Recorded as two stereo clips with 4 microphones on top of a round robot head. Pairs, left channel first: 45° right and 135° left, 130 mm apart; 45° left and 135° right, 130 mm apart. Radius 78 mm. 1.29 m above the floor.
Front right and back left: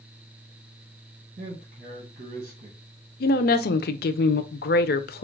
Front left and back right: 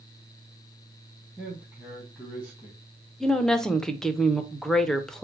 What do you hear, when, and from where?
1.4 s a man speaking: 145° left, 1.4 m
3.2 s a woman speaking: 40° right, 0.5 m